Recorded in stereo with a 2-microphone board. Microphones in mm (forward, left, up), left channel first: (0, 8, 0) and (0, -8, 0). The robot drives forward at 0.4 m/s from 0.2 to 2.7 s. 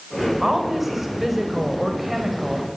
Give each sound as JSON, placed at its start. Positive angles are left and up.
{"t": 0.4, "sound": "a woman speaking", "side_deg": -15, "distance_m": 5.5}